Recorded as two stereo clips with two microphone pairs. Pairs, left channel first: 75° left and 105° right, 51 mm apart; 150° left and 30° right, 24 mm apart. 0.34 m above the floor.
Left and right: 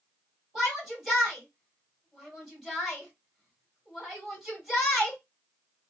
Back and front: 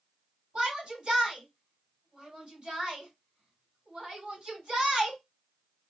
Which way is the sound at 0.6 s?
15° right.